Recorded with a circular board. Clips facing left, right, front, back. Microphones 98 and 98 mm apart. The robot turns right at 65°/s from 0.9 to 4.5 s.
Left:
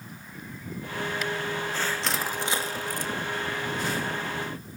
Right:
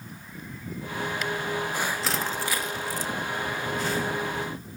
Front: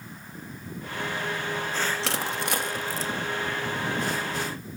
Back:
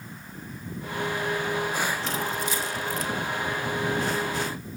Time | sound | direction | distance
2.0 | crushing | 5° right | 1.7 m